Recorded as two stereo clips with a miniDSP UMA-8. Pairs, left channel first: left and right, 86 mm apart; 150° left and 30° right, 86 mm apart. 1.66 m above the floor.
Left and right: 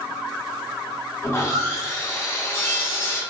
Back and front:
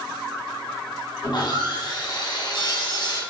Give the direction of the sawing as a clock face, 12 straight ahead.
7 o'clock.